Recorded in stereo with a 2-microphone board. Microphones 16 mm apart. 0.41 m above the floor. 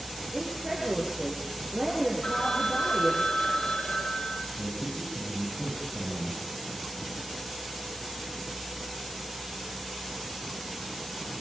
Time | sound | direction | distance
0.3 | a woman speaking | 15° right (ahead or behind) | 7.5 m
2.2 | a phone ringing | 70° left (ahead or behind) | 4.5 m
4.6 | a man speaking | 80° left | 9.5 m